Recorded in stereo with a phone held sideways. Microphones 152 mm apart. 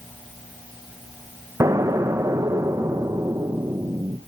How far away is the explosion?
About 0.5 m.